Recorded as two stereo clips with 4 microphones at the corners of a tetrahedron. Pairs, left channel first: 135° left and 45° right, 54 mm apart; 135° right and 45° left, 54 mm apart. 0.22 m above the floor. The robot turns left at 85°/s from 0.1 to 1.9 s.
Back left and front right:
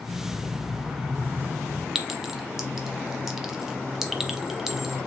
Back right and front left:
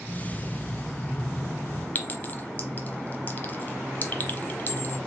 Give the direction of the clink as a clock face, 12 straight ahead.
4 o'clock.